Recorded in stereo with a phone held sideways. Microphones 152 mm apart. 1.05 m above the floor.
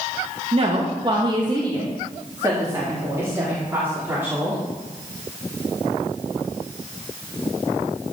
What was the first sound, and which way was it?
A woman speaking, 40° right (ahead or behind).